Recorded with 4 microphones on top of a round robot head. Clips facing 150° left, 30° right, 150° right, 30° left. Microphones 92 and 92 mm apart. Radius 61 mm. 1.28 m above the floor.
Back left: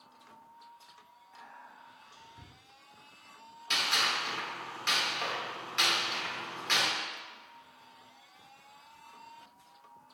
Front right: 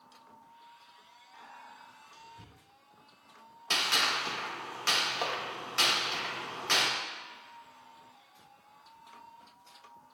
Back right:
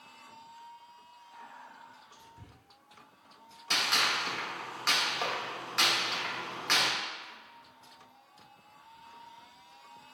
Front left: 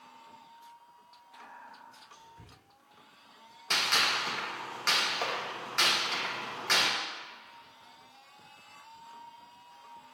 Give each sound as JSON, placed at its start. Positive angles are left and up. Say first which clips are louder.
{"t": 1.3, "sound": "whispering", "louder": "front right 1 dB, even", "azimuth_deg": 160, "distance_m": 1.6}
{"t": 3.7, "sound": "a gunshot", "louder": "front right 1 dB, even", "azimuth_deg": -60, "distance_m": 0.7}